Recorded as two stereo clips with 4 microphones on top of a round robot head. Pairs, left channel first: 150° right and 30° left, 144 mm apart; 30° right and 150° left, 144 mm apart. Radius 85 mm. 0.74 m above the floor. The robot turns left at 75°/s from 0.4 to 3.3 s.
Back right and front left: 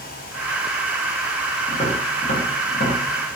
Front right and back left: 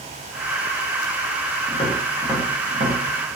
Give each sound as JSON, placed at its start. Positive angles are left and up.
{"t": 1.7, "sound": "tapping", "azimuth_deg": -85, "distance_m": 0.7}